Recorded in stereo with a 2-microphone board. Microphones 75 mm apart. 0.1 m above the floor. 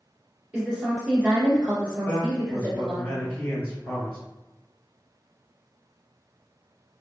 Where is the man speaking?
25° left (ahead or behind), 1.2 m.